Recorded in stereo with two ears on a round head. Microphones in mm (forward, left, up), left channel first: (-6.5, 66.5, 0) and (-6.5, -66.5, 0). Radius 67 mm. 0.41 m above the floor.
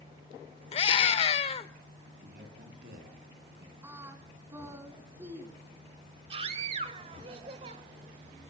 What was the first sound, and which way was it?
A scream, 40° left (ahead or behind).